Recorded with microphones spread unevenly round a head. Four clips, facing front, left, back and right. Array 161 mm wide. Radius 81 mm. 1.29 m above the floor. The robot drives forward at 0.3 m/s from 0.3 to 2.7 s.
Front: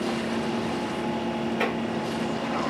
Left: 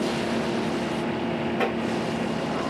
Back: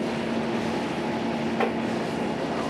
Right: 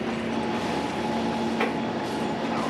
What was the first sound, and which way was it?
Tapping, 155° left.